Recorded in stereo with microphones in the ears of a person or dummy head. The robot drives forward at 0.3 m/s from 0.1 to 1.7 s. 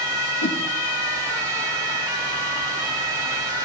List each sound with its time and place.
0.4 s a whoosh: 65° left (ahead or behind), 3.5 m